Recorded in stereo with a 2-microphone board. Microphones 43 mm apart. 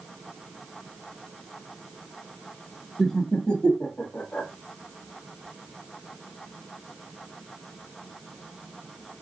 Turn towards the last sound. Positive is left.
turn(degrees=50)  # may be behind; listen again after turning